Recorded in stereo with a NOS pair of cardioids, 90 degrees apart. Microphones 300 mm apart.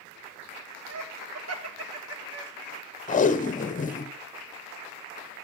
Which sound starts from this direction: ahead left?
Tape being pulled, at 3.1 s.